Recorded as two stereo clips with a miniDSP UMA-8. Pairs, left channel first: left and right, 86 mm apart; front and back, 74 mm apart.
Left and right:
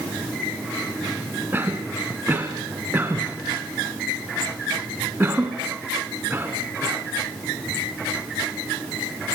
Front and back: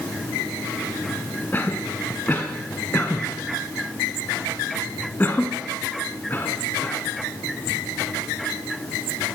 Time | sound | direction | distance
1.5 | a cough | 40° right | 1.6 m